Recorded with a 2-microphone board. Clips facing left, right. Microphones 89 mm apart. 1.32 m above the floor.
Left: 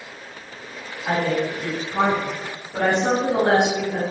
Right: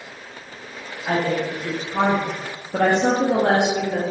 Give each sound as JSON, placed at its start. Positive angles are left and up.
{"t": 1.1, "sound": "a woman speaking", "side_deg": 10, "distance_m": 1.0}